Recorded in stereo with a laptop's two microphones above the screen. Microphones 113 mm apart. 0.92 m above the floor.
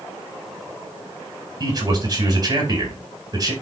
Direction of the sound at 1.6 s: 35° right (ahead or behind).